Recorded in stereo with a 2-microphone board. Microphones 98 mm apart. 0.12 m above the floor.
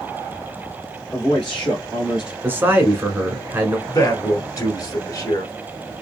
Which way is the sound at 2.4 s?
20° right (ahead or behind).